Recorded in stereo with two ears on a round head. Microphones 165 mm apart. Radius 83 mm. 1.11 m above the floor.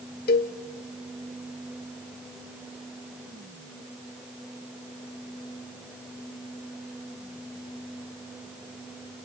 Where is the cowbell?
55° left (ahead or behind), 1.2 m.